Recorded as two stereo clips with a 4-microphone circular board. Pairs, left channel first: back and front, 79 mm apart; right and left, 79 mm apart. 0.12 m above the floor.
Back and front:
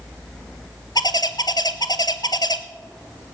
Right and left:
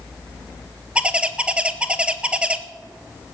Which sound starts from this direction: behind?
A bird, at 0.9 s.